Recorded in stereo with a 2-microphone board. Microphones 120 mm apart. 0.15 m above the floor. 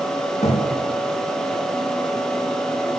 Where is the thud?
75° left (ahead or behind), 8 m.